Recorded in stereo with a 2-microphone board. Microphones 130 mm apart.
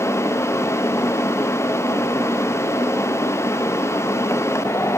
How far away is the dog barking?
No dog barking in this recording.